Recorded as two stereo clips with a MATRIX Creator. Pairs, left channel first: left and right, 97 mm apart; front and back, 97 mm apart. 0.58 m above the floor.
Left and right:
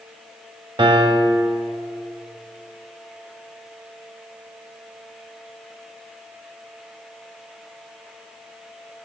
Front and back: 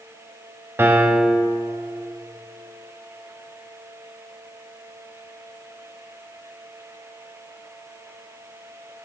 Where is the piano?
115° right, 0.9 m.